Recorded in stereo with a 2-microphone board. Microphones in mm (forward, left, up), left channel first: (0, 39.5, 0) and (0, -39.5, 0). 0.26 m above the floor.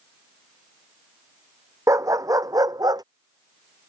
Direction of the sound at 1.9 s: 40° right (ahead or behind).